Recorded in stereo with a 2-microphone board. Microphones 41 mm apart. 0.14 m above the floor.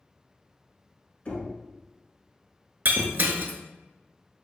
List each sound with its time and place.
1.2 s knocking: 35° left (ahead or behind), 1.2 m
2.9 s breaking glass: 55° right (ahead or behind), 0.6 m